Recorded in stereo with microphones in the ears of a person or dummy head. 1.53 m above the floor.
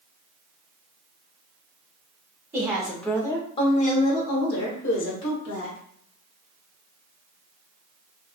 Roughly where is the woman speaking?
Centre.